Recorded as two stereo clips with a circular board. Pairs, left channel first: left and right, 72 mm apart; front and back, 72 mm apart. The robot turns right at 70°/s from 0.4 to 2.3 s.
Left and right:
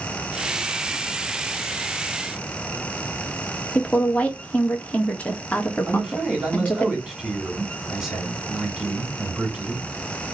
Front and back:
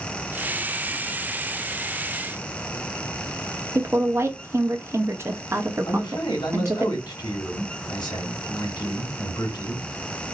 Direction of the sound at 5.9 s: 10° right.